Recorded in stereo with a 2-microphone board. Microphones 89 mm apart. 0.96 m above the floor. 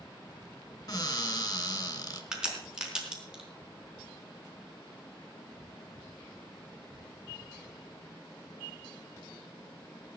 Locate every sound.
0.9 s a cupboard door: 40° left (ahead or behind), 2 m
2.3 s a crack: 10° right (ahead or behind), 4 m